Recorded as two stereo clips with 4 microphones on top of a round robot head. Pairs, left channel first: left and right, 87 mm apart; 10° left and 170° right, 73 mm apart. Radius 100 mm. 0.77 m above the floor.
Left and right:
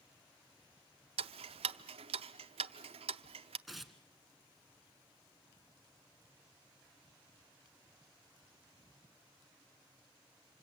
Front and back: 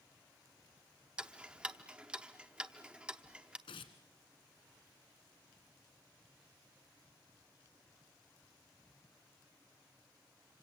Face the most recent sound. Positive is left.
turn(degrees=-5)